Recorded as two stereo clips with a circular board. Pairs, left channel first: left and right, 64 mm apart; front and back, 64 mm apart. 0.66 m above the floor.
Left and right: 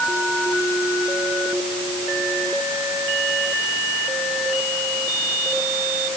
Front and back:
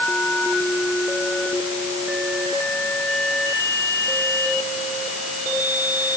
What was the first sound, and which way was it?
Only background noise.